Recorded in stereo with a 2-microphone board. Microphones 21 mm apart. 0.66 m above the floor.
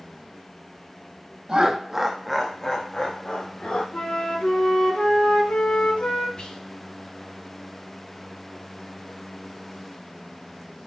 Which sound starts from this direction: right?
Laughter, at 1.5 s.